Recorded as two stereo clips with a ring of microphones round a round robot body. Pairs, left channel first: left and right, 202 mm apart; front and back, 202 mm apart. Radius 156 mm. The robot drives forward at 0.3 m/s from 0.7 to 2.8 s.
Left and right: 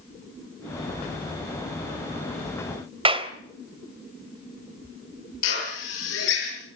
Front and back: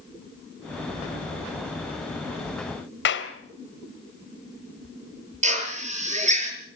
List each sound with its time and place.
3.0 s a clap: 30° right, 2.5 m
5.4 s a drill: 125° left, 7.5 m